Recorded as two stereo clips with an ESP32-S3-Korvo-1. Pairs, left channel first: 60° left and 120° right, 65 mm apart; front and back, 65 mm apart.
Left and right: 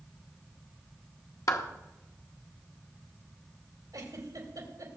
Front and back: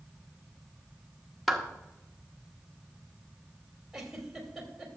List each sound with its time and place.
1.5 s a clap: 90° left, 1.2 m
3.9 s a giggle: 95° right, 2.5 m